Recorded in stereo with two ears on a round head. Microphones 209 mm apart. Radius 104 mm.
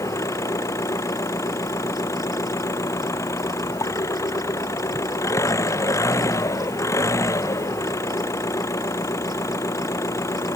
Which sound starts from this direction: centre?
An engine running, at 0.0 s.